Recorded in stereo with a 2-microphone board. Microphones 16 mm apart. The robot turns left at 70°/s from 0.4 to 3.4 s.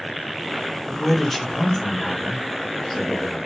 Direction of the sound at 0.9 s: 170° right.